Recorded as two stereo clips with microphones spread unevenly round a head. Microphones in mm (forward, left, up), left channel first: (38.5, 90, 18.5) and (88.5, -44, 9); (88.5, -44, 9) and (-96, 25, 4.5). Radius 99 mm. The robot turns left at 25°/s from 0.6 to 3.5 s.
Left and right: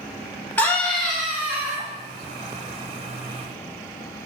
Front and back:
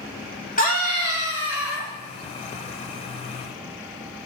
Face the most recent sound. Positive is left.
turn(degrees=-40)